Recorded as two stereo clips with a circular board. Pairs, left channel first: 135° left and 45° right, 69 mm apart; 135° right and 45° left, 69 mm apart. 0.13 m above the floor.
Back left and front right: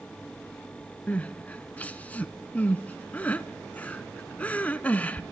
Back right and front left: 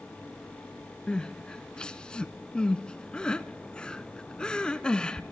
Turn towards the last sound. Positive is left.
turn(degrees=165)